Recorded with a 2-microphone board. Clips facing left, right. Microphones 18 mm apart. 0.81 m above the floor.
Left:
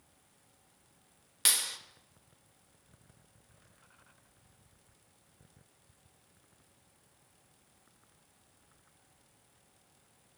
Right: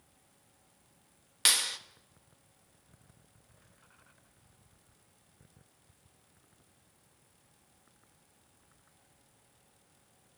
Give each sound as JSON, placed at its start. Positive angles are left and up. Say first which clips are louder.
{"t": 1.4, "sound": "a clap", "louder": "right 4 dB", "side_deg": -15, "distance_m": 1.2}